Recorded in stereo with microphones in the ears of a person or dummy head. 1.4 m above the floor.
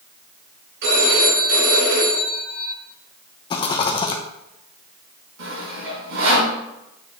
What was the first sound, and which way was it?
A phone ringing, 70° right (ahead or behind).